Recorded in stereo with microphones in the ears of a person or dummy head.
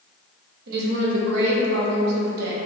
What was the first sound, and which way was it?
A woman speaking, 60° right (ahead or behind).